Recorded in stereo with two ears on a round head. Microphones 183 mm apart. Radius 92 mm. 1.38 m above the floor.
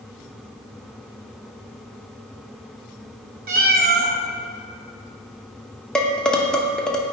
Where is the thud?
No thud in this recording.